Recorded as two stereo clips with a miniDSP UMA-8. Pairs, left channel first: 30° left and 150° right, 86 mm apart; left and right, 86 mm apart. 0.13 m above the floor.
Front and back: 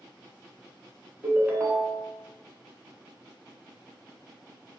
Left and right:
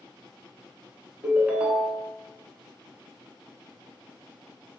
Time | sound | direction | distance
1.2 | a ringtone | 125° right | 0.6 m